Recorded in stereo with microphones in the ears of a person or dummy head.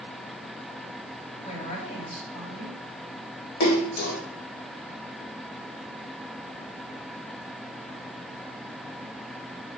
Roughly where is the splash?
Left.